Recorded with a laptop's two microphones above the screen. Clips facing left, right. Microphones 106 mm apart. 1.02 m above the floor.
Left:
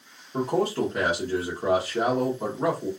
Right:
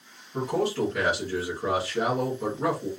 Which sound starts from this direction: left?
A man speaking, at 0.3 s.